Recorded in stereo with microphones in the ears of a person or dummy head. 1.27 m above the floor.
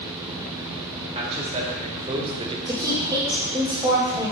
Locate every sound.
1.1 s a man speaking: 30° right (ahead or behind), 2.5 m; by 2.6 s 25° right (ahead or behind), 1.3 m
2.7 s a woman speaking: 20° right (ahead or behind), 1.6 m